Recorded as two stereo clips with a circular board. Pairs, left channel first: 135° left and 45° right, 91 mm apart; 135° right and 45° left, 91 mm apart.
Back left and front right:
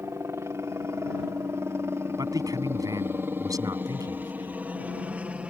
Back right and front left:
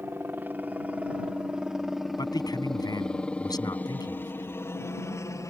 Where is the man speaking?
95° right.